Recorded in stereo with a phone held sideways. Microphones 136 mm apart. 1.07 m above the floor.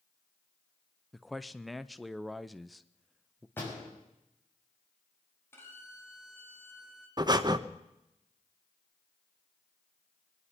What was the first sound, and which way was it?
A man speaking, centre (ahead or behind).